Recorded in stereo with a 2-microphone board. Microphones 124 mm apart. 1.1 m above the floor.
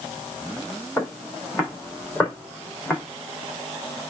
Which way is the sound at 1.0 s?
20° left (ahead or behind).